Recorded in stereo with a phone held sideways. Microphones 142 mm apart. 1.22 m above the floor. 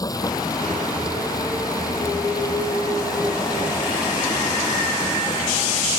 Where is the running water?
30° left (ahead or behind).